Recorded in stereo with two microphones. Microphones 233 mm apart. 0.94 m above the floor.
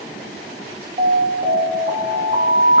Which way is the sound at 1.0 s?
40° right (ahead or behind).